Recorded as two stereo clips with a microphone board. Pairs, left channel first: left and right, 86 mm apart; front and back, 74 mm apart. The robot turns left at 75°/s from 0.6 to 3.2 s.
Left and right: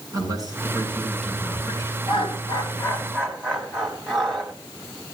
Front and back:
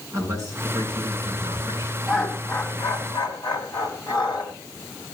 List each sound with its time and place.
0.1 s a man speaking: 135° right, 6.5 m; by 2.0 s 125° left, 6.5 m
2.1 s laughter: 95° left, 4.5 m; by 4.5 s 10° left, 4.5 m